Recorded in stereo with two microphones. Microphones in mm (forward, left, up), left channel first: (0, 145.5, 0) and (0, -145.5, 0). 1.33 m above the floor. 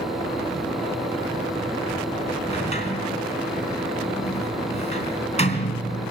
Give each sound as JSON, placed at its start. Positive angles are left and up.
{"t": 2.5, "sound": "a sliding door", "side_deg": 20, "distance_m": 3.5}